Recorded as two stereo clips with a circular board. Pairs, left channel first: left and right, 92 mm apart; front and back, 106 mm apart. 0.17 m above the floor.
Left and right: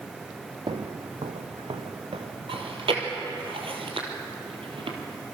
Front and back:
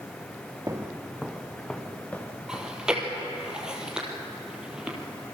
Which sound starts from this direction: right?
Chewing, at 2.5 s.